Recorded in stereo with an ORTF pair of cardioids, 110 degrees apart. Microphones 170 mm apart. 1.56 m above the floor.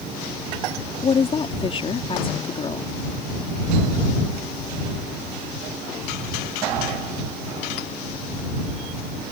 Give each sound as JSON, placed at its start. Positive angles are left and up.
{"t": 1.0, "sound": "a woman speaking", "azimuth_deg": 30}